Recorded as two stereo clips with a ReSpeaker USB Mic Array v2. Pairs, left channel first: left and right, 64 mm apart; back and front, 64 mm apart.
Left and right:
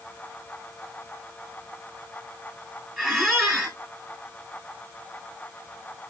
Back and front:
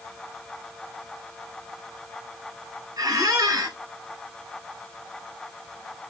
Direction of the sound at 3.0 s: 5° left.